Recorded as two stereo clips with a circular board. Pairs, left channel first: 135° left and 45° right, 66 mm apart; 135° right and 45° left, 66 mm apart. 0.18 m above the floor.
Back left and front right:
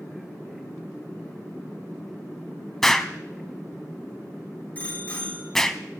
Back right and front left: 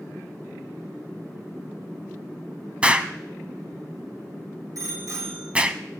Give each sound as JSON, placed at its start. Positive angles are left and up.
{"t": 2.8, "sound": "an explosion", "azimuth_deg": 65, "distance_m": 0.8}
{"t": 4.8, "sound": "a bicycle bell", "azimuth_deg": 70, "distance_m": 6.0}